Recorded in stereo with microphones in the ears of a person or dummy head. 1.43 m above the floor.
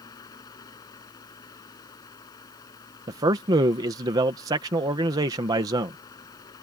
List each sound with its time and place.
0.0 s a fan: 20° left (ahead or behind)
3.1 s a man speaking: 20° right (ahead or behind)